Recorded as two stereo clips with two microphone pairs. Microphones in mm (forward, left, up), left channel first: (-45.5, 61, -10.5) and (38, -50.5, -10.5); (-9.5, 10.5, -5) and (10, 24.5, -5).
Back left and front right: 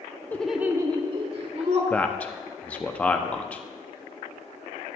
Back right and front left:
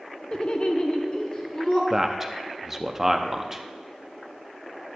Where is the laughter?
165° right, 0.7 m; by 1.8 s 90° right, 1.8 m.